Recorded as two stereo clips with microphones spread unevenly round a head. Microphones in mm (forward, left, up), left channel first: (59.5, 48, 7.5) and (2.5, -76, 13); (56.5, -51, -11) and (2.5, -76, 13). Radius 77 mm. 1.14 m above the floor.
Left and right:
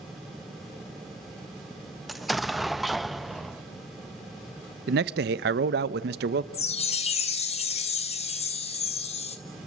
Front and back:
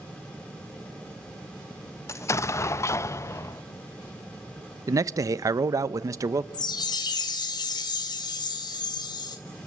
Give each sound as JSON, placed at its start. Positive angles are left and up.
{"t": 2.1, "sound": "an explosion", "azimuth_deg": -30, "distance_m": 0.5}
{"t": 4.9, "sound": "a man speaking", "azimuth_deg": -120, "distance_m": 0.8}
{"t": 6.5, "sound": "a chime", "azimuth_deg": 25, "distance_m": 1.7}